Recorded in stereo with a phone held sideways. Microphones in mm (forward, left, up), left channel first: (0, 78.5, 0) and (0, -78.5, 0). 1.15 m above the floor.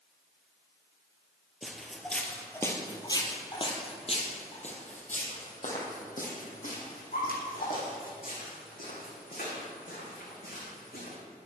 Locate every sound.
1.6 s footsteps: 5° right (ahead or behind), 1.6 m; by 11.2 s 75° left (ahead or behind), 5.5 m